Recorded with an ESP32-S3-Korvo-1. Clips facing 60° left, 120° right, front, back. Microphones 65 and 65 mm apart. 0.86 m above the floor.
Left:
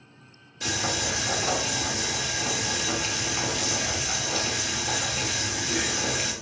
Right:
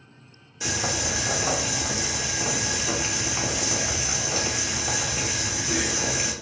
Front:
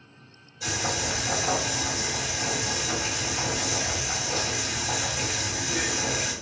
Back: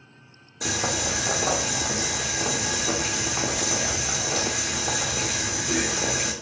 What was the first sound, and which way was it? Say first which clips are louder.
Boiling: right 1 dB, back 2 dB; 165° left.